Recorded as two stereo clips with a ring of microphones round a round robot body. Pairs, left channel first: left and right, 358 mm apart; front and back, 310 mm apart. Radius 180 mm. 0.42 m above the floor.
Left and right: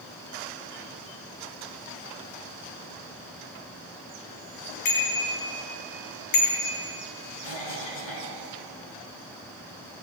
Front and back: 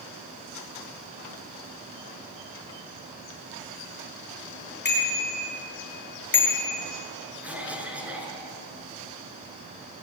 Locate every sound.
4.8 s a bicycle bell: 55° left, 7.5 m; by 6.8 s 50° left, 5.5 m
7.4 s a cough: 95° left, 7.5 m